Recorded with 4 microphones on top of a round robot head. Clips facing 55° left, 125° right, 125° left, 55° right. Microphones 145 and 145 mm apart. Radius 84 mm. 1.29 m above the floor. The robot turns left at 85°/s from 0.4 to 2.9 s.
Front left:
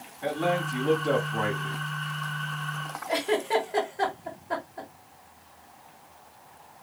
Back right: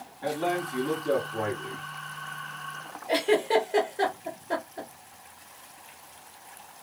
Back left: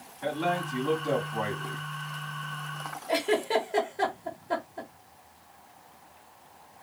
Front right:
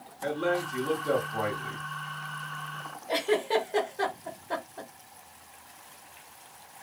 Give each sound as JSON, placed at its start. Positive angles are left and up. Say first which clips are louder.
{"t": 0.2, "sound": "a man speaking", "louder": "front left 1 dB, front right 1 dB", "azimuth_deg": 125, "distance_m": 2.0}
{"t": 3.1, "sound": "a giggle", "louder": "back right 3 dB, even", "azimuth_deg": -160, "distance_m": 1.1}